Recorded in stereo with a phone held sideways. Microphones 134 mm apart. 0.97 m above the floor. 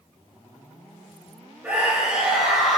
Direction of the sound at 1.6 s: 10° right (ahead or behind).